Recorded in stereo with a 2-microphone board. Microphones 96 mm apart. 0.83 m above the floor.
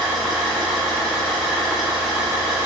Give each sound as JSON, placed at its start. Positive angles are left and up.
{"t": 0.0, "sound": "an engine running", "side_deg": 5, "distance_m": 1.4}